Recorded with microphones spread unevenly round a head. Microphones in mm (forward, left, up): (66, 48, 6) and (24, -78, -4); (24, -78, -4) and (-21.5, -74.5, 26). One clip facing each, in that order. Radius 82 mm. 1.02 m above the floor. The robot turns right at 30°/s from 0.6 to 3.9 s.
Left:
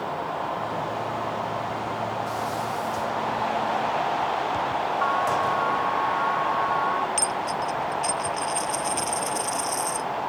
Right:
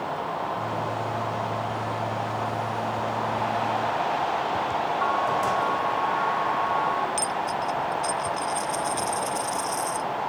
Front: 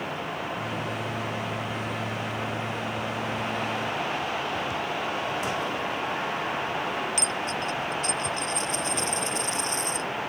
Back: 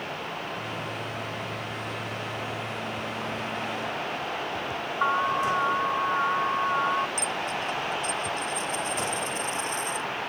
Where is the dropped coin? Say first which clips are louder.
Even, front 1 dB; 5° right.